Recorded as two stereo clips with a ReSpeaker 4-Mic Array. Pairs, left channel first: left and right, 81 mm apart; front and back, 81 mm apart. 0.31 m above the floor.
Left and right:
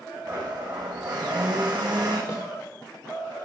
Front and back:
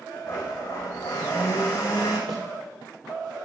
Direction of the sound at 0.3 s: 55° right.